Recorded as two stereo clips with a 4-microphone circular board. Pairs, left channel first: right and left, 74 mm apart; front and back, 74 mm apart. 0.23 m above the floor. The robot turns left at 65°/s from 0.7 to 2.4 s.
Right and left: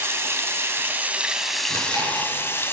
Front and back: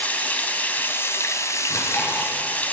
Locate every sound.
0.0 s running water: 55° left, 1.2 m; by 2.7 s 55° right, 1.2 m
1.7 s chewing: 40° right, 4 m; by 2.3 s 80° right, 4 m